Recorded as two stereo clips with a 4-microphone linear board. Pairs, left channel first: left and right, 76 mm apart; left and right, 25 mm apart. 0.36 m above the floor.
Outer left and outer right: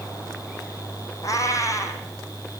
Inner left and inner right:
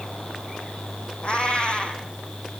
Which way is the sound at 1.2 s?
40° left (ahead or behind).